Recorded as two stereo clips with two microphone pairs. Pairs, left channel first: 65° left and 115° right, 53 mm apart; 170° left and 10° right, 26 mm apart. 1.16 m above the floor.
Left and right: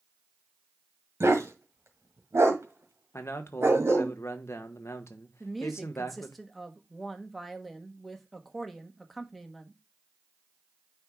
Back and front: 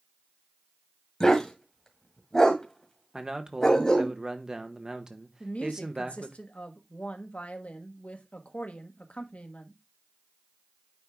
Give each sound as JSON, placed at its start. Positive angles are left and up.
{"t": 1.2, "sound": "a dog barking", "azimuth_deg": -125, "distance_m": 1.8}
{"t": 3.1, "sound": "a man speaking", "azimuth_deg": 50, "distance_m": 1.1}
{"t": 5.4, "sound": "a woman speaking", "azimuth_deg": 155, "distance_m": 1.2}